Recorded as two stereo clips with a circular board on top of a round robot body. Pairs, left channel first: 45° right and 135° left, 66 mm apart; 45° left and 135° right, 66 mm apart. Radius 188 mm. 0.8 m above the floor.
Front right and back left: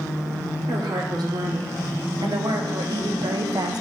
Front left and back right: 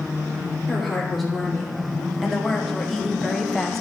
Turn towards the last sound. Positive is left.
turn(degrees=130)